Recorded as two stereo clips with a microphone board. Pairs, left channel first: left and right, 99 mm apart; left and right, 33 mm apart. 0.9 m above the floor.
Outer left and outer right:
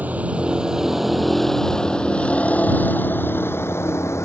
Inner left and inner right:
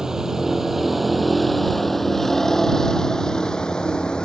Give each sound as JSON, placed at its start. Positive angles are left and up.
{"t": 0.0, "sound": "a vehicle", "side_deg": -15}